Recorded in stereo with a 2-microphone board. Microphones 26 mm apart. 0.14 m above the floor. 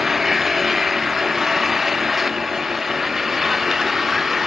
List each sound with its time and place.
0.0 s an engine running: 10° right (ahead or behind)